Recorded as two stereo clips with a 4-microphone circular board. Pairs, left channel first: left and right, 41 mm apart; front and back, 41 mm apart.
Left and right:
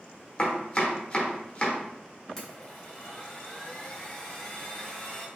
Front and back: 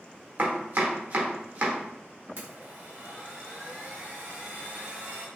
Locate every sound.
0.4 s chopping: 150° left, 0.9 m
2.4 s a blender: 160° left, 1.3 m